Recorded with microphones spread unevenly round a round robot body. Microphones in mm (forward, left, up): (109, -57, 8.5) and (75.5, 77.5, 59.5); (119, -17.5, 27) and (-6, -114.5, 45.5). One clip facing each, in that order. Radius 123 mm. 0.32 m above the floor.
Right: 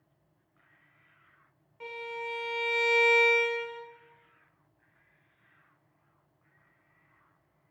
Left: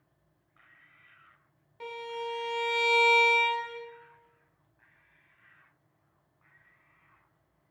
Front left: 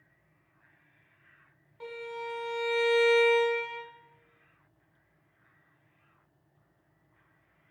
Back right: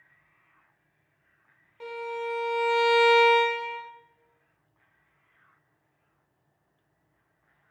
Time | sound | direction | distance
1.8 | a violin | 160° left | 1.1 m